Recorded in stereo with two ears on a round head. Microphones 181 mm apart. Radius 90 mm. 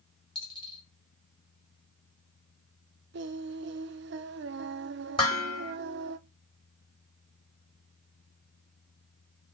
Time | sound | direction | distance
0.3 | a dropped coin | 25° left (ahead or behind) | 2.5 m
3.1 | singing | 60° right (ahead or behind) | 0.8 m
5.2 | dishes clattering | 25° left (ahead or behind) | 4 m